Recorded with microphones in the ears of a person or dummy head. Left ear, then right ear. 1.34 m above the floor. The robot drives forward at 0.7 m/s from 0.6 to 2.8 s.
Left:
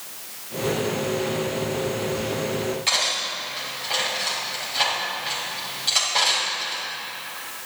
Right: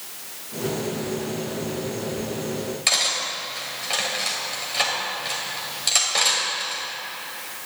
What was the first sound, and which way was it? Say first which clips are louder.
Cutlery clinking: right 2 dB; 25° right (ahead or behind).